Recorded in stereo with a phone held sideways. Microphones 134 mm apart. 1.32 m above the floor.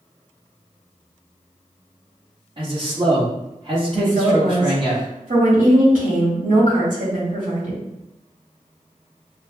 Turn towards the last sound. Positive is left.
turn(degrees=-75)  # may be behind; listen again after turning